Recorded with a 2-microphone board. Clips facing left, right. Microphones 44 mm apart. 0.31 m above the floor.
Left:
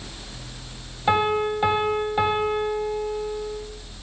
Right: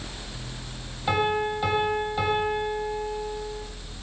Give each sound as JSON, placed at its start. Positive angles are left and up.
{"t": 1.1, "sound": "a piano", "side_deg": 25, "distance_m": 0.8}